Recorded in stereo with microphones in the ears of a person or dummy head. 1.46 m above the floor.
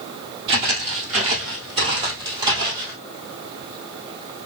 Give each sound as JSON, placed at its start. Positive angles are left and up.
{"t": 0.5, "sound": "footsteps", "side_deg": -30, "distance_m": 1.6}